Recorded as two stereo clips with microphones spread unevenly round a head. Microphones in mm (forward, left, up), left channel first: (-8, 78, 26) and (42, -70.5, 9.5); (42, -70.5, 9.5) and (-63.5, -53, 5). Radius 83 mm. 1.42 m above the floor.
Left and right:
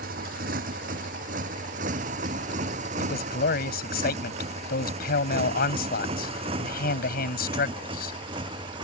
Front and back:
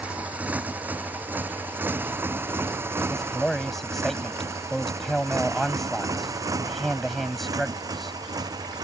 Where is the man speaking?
80° left.